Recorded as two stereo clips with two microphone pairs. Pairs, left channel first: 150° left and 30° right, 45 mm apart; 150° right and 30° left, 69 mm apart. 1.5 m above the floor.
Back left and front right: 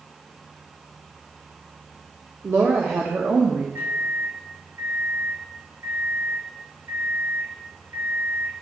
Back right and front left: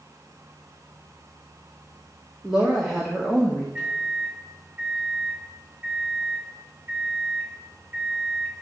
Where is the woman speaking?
50° right, 1.6 m; by 3.6 s 75° right, 1.3 m.